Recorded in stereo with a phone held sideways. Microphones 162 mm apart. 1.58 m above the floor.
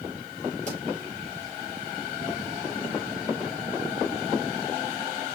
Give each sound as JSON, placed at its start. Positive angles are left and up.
{"t": 0.7, "sound": "a pop", "side_deg": -50, "distance_m": 4.0}